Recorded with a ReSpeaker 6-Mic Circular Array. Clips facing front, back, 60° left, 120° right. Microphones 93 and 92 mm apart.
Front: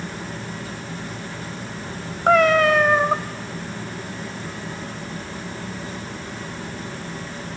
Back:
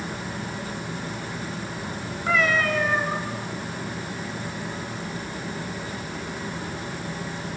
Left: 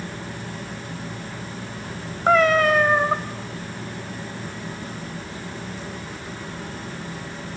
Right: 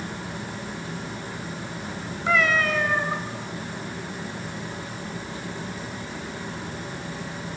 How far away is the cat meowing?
About 1.1 m.